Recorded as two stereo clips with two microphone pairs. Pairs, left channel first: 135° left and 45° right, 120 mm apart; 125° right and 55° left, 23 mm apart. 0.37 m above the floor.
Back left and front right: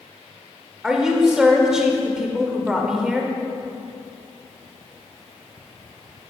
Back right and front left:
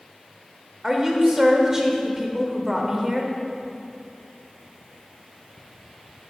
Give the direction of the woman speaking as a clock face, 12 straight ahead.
11 o'clock.